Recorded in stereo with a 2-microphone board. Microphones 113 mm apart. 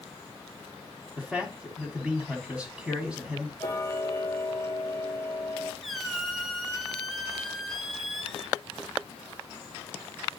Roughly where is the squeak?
Centre.